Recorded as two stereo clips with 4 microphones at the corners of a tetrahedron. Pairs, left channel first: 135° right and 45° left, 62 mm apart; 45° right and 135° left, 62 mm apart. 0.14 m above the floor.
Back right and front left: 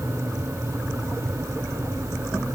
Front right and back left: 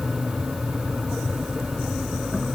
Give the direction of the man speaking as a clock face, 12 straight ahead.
I don't hear a man speaking.